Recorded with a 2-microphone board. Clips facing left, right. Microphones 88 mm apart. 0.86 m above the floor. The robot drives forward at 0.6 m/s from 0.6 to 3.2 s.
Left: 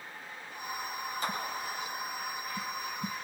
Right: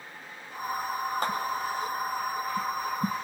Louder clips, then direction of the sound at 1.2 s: Right 4 dB; 60° right (ahead or behind).